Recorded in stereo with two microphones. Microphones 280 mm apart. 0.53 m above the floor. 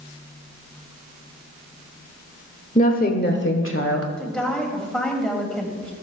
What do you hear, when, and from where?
2.8 s a woman speaking: 25° left (ahead or behind), 1.3 m; by 4.1 s 55° left (ahead or behind), 1.5 m
4.2 s a woman speaking: 5° left (ahead or behind), 2.5 m